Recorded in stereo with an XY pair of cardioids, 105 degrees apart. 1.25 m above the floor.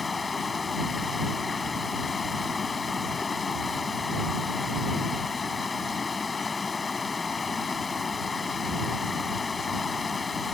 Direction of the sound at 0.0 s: 30° left.